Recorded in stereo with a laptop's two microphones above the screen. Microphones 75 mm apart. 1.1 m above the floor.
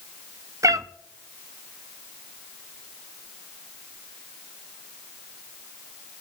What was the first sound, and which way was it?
A cat meowing, 45° right (ahead or behind).